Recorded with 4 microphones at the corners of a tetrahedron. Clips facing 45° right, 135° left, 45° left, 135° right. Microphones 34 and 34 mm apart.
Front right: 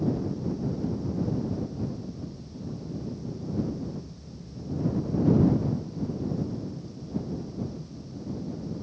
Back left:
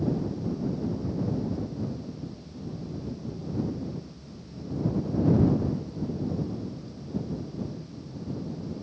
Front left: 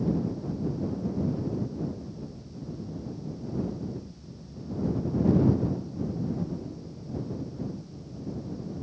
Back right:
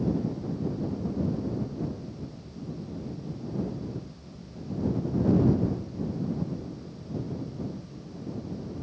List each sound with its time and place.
Only background noise.